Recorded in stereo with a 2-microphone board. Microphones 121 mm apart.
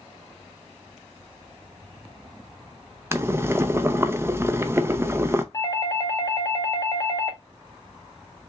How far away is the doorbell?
About 0.9 m.